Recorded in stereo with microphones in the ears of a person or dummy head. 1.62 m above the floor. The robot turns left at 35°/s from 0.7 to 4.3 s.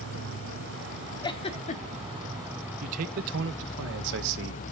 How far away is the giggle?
About 1.0 m.